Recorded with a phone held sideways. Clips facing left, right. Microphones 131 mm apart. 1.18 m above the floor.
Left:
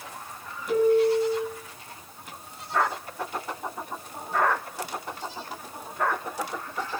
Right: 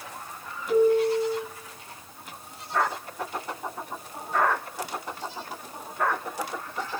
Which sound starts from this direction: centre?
A piano, at 0.7 s.